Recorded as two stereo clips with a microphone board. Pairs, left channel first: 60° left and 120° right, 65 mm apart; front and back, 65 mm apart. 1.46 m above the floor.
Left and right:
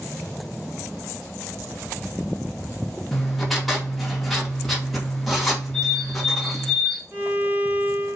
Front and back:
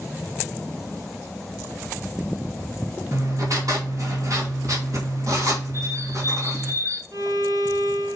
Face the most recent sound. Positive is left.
turn(degrees=175)